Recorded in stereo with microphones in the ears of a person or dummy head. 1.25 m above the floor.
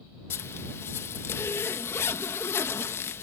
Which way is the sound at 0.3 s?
10° left (ahead or behind).